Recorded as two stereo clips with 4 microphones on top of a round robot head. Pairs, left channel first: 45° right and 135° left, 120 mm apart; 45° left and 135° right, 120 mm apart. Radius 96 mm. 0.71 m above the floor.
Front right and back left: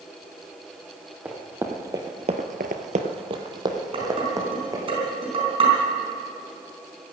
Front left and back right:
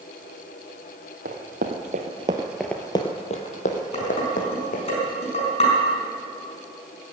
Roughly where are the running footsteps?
Behind right.